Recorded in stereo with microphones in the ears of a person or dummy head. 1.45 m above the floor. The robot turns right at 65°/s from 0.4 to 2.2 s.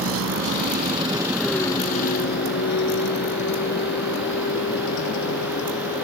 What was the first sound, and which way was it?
A vehicle, 80° right.